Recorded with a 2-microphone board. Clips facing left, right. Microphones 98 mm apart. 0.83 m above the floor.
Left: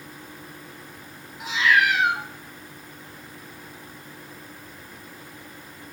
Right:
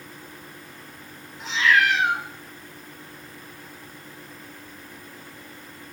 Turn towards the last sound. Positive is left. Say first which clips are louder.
# even
turn(degrees=10)  # may be behind; listen again after turning